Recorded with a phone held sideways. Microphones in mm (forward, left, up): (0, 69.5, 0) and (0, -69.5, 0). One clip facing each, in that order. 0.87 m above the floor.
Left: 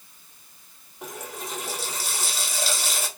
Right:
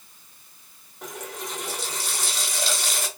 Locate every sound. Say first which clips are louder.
1.0 s a running tap: right 1 dB; 5° left (ahead or behind), 1.1 m